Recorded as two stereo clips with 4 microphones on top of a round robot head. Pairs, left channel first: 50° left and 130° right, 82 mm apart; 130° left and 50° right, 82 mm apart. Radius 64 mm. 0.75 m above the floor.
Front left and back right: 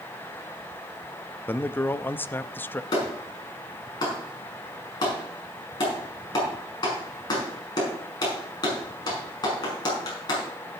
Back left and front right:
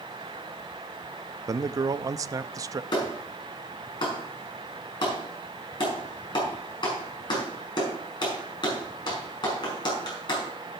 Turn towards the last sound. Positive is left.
turn(degrees=90)